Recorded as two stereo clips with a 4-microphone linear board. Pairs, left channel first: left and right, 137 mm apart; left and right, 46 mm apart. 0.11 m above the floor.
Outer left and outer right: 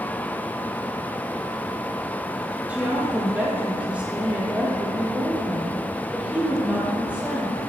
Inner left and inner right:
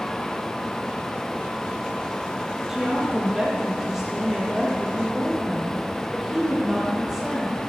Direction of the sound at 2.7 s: 10° right (ahead or behind).